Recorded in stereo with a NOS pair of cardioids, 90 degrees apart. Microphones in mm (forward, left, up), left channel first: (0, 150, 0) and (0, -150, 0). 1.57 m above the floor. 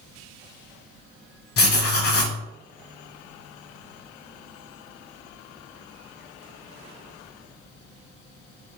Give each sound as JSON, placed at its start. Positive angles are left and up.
{"t": 1.6, "sound": "writing", "azimuth_deg": 50, "distance_m": 1.1}